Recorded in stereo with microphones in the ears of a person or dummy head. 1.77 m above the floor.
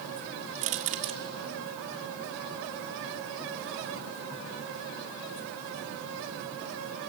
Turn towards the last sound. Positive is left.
turn(degrees=-35)  # may be behind; listen again after turning